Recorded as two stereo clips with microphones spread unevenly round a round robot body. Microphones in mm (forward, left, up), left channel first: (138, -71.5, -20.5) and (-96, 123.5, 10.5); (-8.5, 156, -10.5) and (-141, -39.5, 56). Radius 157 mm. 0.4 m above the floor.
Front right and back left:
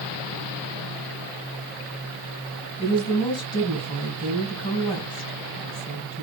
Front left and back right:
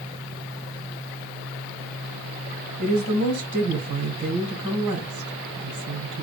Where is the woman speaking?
115° right, 3 m.